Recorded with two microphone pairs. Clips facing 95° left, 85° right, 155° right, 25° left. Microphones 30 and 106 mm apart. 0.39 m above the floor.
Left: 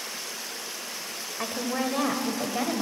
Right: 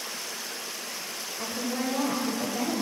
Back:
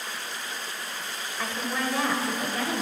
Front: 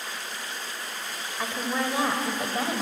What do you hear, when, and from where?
1.4 s a woman speaking: 100° left, 1.5 m; by 2.8 s 75° left, 1.8 m